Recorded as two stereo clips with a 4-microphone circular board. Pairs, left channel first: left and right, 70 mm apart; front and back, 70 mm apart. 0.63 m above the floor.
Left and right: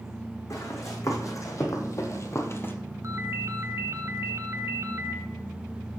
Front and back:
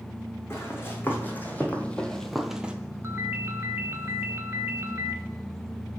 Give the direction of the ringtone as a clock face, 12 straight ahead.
4 o'clock.